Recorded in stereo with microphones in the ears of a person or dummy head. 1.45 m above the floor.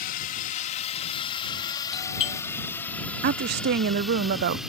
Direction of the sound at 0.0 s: 45° left (ahead or behind).